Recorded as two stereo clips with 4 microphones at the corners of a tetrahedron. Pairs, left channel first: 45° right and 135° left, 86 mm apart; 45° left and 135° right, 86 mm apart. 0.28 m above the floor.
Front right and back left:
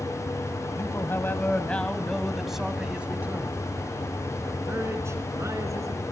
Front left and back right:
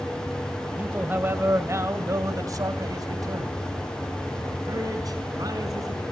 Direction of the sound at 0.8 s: 70° right.